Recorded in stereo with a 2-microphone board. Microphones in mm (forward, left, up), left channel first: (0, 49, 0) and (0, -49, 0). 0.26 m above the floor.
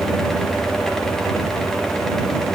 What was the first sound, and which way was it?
Only background noise.